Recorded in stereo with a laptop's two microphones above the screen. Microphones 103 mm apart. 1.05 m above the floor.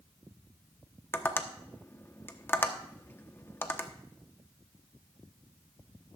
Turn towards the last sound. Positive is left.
turn(degrees=20)  # may be behind; listen again after turning